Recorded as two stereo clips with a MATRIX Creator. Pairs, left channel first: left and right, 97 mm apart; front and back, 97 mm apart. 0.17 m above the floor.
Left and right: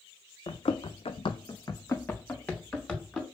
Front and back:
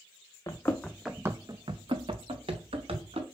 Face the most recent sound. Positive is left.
turn(degrees=175)